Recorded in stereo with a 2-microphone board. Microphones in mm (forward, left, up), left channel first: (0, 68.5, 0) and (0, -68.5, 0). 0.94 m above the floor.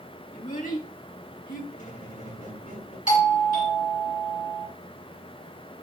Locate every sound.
0.3 s a child speaking: 85° left, 3.5 m; by 1.6 s 75° left (ahead or behind), 4.5 m
1.7 s a squeak: 90° left, 8 m
3.1 s a doorbell: 70° left (ahead or behind), 3 m